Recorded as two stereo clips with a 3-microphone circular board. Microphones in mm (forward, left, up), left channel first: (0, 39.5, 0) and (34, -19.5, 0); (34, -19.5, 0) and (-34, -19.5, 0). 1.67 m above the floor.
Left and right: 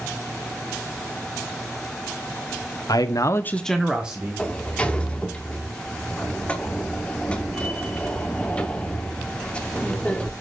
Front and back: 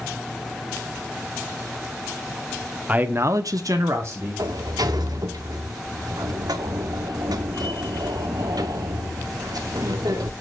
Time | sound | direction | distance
2.9 | a man speaking | 115° left | 1.0 m
4.4 | a sliding door | 170° right | 0.9 m